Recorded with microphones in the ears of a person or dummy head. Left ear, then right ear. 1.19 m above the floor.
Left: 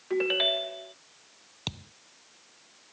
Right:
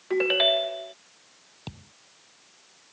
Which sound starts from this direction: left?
A thud, at 1.7 s.